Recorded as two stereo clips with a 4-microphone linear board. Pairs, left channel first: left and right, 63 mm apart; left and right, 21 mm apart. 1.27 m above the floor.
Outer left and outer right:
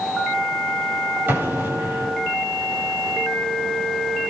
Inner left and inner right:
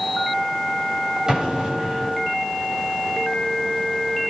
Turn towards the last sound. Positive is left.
turn(degrees=-35)  # may be behind; listen again after turning